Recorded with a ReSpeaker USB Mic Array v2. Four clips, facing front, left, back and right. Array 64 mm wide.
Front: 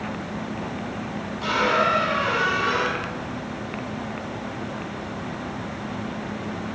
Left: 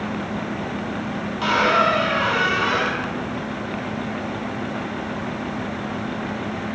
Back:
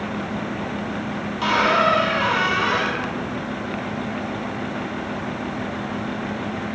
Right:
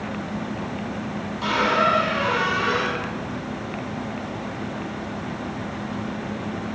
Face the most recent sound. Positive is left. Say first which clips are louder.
# left 2 dB, back 3 dB
turn(degrees=125)